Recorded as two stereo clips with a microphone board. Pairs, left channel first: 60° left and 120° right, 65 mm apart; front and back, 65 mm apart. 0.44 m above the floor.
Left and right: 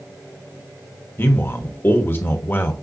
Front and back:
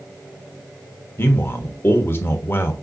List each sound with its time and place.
1.2 s a man speaking: 30° left, 1.2 m